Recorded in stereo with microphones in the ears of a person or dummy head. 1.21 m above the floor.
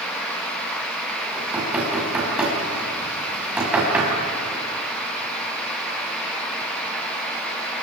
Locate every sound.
1.3 s knocking: 5° right (ahead or behind), 6 m